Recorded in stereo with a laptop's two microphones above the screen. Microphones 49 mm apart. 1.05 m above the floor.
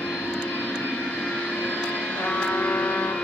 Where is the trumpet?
50° left (ahead or behind), 1.3 m.